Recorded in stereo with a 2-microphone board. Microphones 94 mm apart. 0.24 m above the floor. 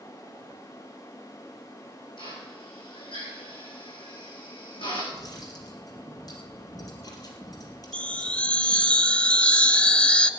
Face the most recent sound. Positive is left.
turn(degrees=15)  # may be behind; listen again after turning